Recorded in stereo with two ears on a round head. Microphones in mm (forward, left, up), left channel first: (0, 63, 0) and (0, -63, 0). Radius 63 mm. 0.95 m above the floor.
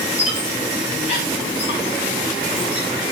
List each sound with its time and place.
0.2 s a squeak: 55° left (ahead or behind), 8 m